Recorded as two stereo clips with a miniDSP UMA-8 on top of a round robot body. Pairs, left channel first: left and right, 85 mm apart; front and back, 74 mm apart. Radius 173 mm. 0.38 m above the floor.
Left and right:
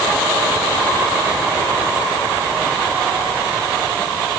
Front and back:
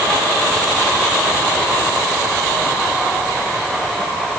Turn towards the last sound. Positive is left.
No sound to turn to.